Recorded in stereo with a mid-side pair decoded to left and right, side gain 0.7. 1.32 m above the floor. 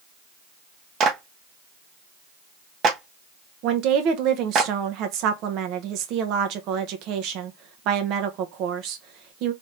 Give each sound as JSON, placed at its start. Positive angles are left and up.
{"t": 1.0, "sound": "a clap", "azimuth_deg": -45, "distance_m": 1.0}
{"t": 3.6, "sound": "a woman speaking", "azimuth_deg": -60, "distance_m": 0.9}